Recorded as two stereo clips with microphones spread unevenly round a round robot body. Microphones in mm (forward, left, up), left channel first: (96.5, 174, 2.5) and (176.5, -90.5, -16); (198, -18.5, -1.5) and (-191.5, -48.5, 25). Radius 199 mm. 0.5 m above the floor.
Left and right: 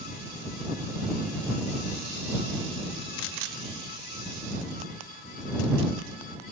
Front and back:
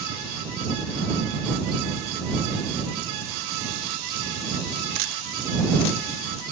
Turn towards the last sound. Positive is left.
No sound to turn to.